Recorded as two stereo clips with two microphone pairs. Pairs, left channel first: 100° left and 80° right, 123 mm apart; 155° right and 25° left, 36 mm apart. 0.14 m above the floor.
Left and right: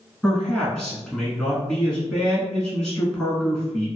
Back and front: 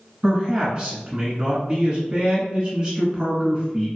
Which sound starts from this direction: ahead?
A man speaking, at 0.2 s.